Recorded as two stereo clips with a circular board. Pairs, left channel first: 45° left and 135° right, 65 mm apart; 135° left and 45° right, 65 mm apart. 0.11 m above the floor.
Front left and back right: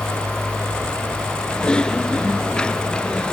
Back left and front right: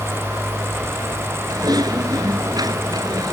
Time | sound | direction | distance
1.5 | typing on a keyboard | 35° right | ?